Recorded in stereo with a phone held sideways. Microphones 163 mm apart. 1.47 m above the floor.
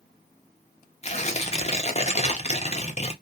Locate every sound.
1.0 s tearing paper: 40° left (ahead or behind), 0.6 m